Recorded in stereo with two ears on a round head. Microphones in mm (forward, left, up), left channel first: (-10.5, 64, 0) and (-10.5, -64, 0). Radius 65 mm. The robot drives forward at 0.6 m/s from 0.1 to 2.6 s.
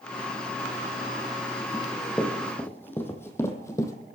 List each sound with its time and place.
1.7 s running footsteps: 10° left (ahead or behind), 3 m; by 3.9 s 20° left (ahead or behind), 1.7 m